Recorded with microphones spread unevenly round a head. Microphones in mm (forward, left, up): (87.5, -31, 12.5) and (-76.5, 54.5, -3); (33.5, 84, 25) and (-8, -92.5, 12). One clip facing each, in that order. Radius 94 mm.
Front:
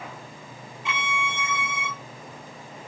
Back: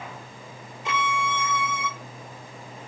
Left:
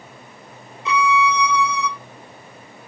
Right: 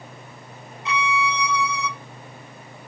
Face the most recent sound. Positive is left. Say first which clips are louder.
# back 4 dB, left 5 dB
turn(degrees=100)